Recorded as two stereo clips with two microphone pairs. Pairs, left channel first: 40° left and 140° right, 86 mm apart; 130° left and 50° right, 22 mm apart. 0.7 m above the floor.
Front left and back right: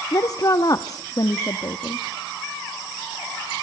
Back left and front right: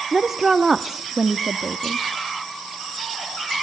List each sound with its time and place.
0.1 s a woman speaking: 5° left, 0.8 m